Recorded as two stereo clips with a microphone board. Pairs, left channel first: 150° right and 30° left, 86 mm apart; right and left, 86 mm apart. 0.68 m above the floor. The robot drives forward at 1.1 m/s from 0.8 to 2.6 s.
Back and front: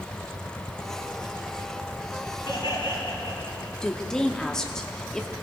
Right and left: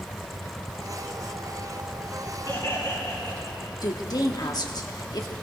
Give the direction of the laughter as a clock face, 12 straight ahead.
4 o'clock.